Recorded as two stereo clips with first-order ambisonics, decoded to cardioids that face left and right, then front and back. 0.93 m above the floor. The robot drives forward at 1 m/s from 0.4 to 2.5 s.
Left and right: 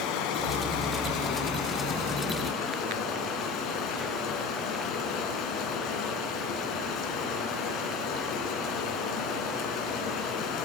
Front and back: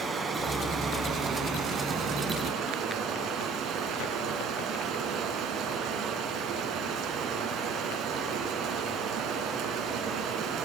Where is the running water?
100° left, 3.5 m; by 10.7 s 130° left, 4.5 m.